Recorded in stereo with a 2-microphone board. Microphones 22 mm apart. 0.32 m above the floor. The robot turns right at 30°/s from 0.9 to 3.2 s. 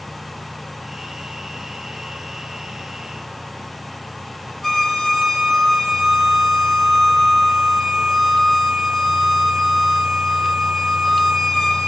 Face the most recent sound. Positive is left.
turn(degrees=10)  # may be behind; listen again after turning